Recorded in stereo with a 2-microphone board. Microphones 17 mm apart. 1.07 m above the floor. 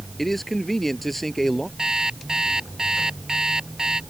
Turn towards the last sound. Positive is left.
turn(degrees=-50)  # may be behind; listen again after turning